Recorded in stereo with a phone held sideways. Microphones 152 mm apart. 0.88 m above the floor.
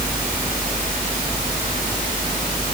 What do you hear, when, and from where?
Only background noise.